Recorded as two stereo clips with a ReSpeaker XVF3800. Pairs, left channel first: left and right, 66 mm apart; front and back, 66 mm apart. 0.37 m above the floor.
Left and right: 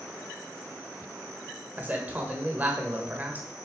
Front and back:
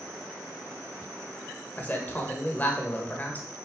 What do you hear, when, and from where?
1.8 s a man speaking: 45° right, 1.5 m